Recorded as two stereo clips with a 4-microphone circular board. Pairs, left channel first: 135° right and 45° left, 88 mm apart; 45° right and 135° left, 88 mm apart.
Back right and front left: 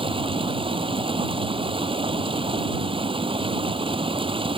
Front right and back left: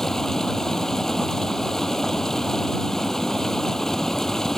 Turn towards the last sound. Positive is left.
turn(degrees=40)